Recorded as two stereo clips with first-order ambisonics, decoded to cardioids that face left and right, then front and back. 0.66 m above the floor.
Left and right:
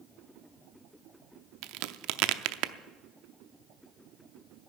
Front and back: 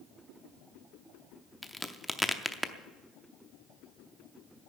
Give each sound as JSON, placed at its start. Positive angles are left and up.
{"t": 1.6, "sound": "a crack", "azimuth_deg": -85, "distance_m": 0.6}